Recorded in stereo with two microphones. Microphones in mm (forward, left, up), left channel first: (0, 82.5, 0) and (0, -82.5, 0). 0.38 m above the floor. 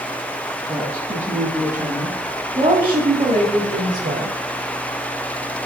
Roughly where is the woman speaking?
Centre.